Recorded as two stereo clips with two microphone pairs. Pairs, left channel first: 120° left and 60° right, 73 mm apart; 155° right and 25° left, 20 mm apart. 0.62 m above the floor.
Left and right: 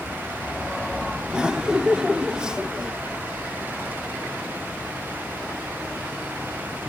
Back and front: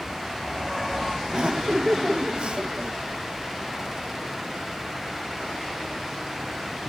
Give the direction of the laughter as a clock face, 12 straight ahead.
11 o'clock.